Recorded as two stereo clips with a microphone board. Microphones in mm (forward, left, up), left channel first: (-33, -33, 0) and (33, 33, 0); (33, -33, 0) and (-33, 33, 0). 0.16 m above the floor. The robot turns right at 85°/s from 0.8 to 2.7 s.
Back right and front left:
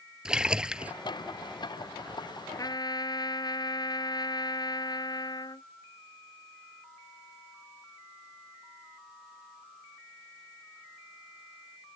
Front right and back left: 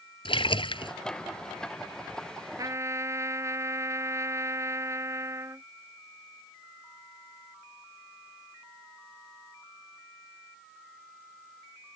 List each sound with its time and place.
0.2 s a splash: 35° right; by 0.9 s 25° right
2.6 s a trumpet: straight behind; by 5.7 s 170° right